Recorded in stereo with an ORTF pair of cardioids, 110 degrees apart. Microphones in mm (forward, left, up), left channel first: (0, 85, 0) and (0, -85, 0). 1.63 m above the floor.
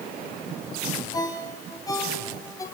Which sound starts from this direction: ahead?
A ringtone, at 1.1 s.